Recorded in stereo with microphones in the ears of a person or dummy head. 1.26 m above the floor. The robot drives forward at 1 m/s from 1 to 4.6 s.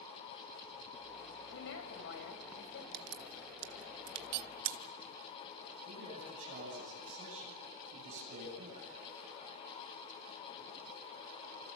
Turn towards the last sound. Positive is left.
turn(degrees=-40)  # may be behind; listen again after turning